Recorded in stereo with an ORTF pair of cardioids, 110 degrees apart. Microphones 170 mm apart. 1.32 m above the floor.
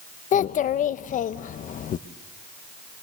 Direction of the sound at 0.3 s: 50° left.